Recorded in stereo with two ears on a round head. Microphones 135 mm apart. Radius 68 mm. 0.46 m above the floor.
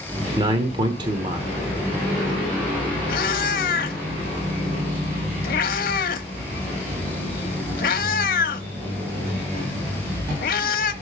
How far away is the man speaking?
About 1.0 m.